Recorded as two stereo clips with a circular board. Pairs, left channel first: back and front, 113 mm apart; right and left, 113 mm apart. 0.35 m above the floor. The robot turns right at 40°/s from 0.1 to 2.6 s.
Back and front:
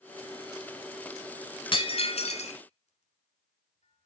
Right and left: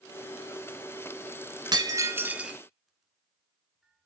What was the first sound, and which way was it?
Breaking glass, 140° left.